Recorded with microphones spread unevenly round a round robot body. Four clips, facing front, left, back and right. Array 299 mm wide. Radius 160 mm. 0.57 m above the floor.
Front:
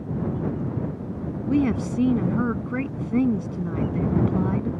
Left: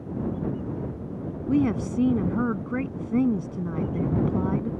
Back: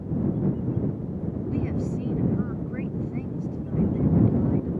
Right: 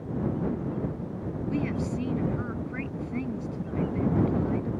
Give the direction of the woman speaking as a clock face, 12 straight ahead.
11 o'clock.